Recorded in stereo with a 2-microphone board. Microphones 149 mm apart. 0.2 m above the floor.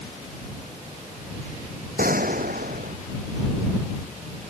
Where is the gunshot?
75° right (ahead or behind).